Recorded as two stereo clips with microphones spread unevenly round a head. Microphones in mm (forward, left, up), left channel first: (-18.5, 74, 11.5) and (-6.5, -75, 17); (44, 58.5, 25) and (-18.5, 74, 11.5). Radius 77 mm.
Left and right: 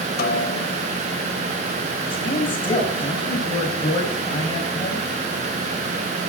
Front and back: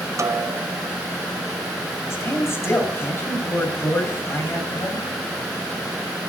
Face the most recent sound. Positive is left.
turn(degrees=35)